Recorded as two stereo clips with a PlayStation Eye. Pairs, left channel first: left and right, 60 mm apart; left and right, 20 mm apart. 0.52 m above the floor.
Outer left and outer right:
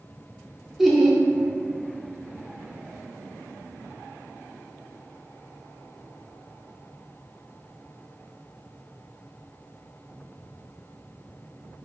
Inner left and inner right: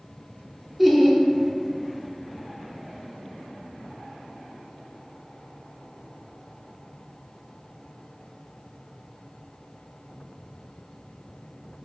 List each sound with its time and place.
0.8 s laughter: 5° right (ahead or behind), 1.2 m